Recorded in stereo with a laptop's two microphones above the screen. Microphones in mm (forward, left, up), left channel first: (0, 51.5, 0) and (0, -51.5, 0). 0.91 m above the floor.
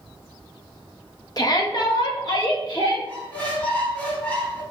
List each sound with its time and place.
1.4 s a shout: 40° left (ahead or behind), 0.7 m; by 3.0 s 50° left (ahead or behind), 1.6 m
3.1 s a squeak: 15° left (ahead or behind), 1.5 m